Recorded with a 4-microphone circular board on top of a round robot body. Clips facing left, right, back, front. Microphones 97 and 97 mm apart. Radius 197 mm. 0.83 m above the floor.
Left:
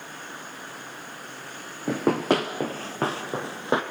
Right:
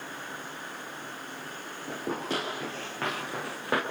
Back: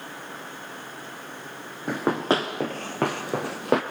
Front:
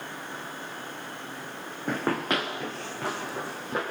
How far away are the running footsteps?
About 1.3 m.